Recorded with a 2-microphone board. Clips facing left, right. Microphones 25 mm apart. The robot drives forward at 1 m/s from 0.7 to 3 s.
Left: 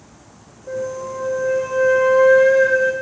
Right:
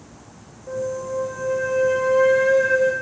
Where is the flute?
10° left (ahead or behind), 2.5 m; by 2.9 s 5° left (ahead or behind), 4.5 m.